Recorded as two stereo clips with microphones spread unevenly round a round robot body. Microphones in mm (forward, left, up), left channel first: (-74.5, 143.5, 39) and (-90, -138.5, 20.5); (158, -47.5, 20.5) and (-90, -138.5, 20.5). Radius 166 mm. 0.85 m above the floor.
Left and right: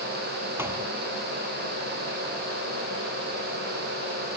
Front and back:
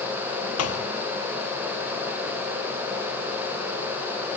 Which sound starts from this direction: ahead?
A thud, at 0.6 s.